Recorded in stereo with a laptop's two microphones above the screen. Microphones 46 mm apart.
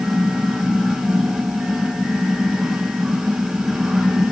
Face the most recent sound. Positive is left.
turn(degrees=-10)  # may be behind; listen again after turning